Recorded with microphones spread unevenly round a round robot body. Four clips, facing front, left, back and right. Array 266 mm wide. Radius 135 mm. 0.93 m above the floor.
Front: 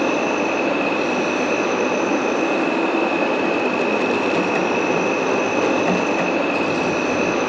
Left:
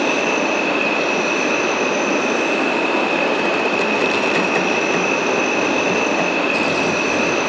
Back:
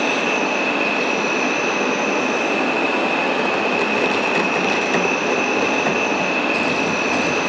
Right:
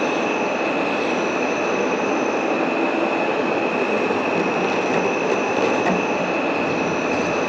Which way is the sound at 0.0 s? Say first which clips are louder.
Left 2 dB, front 1 dB; 55° left.